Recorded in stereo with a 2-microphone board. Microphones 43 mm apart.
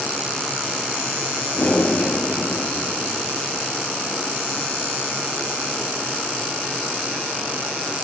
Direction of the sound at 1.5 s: 30° left (ahead or behind).